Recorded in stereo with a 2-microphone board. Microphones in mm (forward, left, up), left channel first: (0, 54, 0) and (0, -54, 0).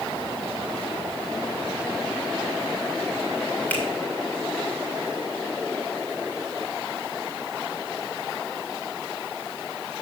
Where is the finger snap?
15° left (ahead or behind), 2.5 m.